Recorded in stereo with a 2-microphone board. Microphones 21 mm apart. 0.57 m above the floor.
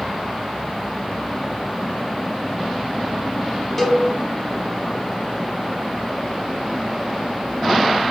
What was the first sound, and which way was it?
A cowbell, centre (ahead or behind).